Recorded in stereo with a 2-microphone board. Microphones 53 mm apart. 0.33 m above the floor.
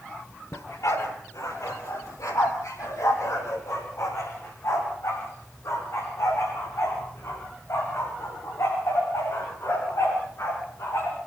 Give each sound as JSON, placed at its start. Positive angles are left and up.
{"t": 0.5, "sound": "a dog barking", "side_deg": 70, "distance_m": 3.5}